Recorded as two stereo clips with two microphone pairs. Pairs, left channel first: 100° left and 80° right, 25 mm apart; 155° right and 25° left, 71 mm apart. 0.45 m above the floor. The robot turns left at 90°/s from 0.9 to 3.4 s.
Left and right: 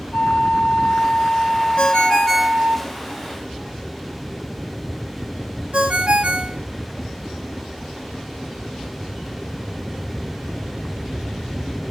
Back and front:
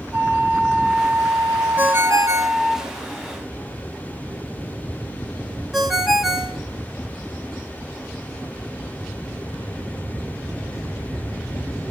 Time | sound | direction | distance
0.1 | a flute | 105° left | 1.3 m
1.8 | a ringtone | 80° left | 1.0 m